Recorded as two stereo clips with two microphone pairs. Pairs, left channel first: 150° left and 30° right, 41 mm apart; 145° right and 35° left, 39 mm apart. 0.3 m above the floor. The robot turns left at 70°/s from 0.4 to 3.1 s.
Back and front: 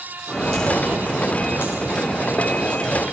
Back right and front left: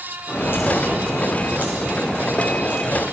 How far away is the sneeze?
I don't hear a sneeze.